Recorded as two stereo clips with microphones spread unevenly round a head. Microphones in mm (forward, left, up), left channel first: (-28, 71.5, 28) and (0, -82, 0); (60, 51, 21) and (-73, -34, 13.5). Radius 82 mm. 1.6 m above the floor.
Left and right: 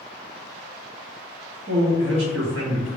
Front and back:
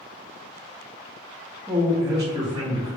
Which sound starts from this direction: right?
A man speaking, at 1.7 s.